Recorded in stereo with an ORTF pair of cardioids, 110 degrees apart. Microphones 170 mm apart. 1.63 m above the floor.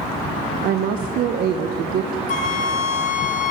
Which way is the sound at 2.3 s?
45° left.